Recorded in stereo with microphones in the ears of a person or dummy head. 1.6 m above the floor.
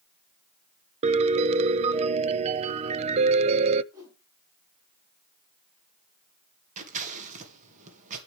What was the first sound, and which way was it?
A piano, 40° right (ahead or behind).